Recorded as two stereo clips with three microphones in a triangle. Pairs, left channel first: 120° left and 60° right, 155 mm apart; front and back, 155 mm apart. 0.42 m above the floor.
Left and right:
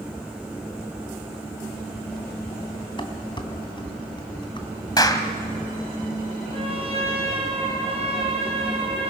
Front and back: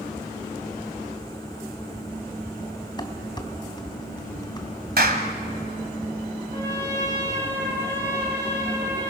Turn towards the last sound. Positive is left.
turn(degrees=-115)